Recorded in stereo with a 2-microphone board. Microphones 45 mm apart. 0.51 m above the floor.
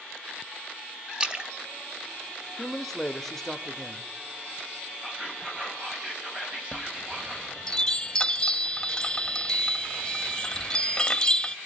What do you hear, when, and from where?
1.2 s a splash: 25° right (ahead or behind), 1.5 m
2.6 s a man speaking: 5° left (ahead or behind), 0.7 m
5.0 s whispering: 25° right (ahead or behind), 4 m
6.7 s a chime: 20° left (ahead or behind), 0.7 m